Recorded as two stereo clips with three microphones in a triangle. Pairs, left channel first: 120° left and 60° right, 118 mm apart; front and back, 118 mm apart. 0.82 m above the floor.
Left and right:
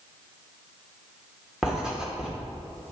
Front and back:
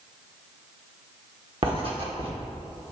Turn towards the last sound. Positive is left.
turn(degrees=-145)